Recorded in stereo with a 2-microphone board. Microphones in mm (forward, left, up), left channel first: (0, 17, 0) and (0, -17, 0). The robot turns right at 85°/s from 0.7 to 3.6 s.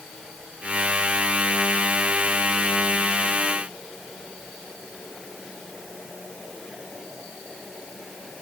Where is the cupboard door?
I don't hear a cupboard door.